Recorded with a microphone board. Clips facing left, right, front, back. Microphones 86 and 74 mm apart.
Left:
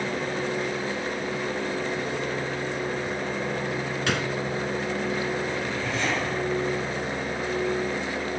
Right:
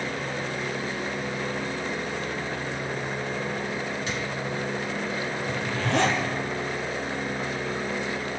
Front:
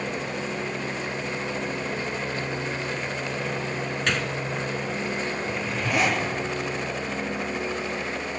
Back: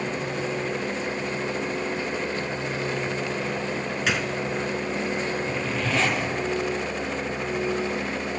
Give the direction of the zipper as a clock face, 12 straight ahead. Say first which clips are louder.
Right 1 dB, back 1 dB; 3 o'clock.